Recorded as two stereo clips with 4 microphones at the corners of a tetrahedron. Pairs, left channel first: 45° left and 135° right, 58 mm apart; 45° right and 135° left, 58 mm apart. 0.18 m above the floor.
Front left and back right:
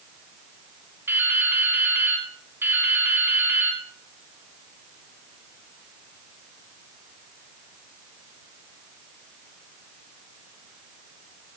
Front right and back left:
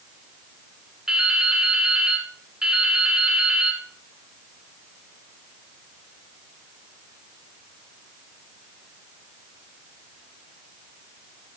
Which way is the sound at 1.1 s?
150° right.